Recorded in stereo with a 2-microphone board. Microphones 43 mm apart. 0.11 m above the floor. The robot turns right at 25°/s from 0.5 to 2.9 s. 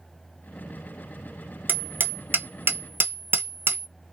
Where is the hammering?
50° right (ahead or behind), 0.8 m; by 3.9 s 65° right (ahead or behind), 0.8 m.